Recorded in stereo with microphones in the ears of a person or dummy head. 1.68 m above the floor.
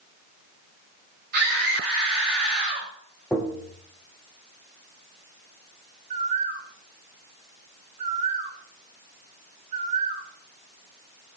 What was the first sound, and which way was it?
A scream, 50° right (ahead or behind).